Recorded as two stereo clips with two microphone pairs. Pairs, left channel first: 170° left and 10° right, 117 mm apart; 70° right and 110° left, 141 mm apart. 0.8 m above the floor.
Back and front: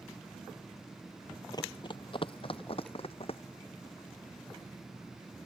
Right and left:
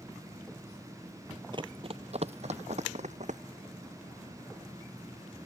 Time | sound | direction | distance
1.5 | running footsteps | 140° left | ?